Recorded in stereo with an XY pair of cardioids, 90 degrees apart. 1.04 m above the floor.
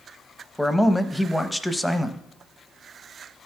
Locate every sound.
0.6 s a man speaking: 10° left, 0.8 m